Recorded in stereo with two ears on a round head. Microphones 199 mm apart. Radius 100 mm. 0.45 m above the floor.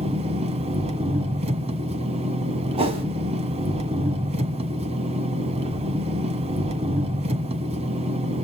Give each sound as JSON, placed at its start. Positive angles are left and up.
{"t": 0.0, "sound": "an engine running", "side_deg": -30, "distance_m": 1.6}
{"t": 2.8, "sound": "a whoosh", "side_deg": -25, "distance_m": 3.0}